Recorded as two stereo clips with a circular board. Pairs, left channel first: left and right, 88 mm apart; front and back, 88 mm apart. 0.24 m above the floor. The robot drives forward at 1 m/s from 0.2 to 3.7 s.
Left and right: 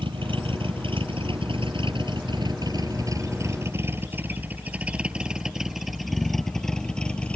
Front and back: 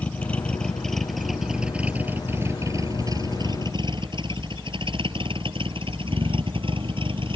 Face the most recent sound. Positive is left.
turn(degrees=165)